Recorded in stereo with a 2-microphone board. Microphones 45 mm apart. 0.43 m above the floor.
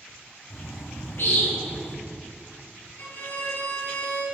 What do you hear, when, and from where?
0.5 s a bird: 65° left (ahead or behind), 1.7 m
3.0 s a violin: 60° left (ahead or behind), 2.5 m